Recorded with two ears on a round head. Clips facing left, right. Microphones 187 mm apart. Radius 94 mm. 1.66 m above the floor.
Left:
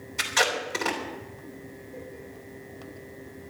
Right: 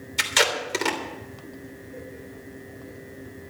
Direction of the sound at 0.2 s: 45° right (ahead or behind).